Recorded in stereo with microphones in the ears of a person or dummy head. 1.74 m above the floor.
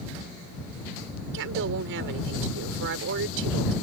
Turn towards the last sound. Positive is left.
turn(degrees=-65)  # may be behind; listen again after turning